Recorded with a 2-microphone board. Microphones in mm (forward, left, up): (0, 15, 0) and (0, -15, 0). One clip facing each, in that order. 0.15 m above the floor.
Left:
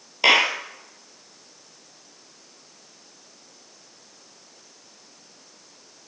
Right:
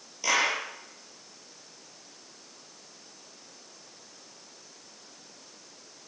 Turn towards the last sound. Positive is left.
turn(degrees=65)  # may be behind; listen again after turning